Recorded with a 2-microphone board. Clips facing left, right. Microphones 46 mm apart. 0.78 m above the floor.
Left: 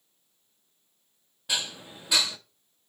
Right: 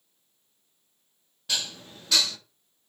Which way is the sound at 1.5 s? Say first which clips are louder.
Left 1 dB; 15° left (ahead or behind).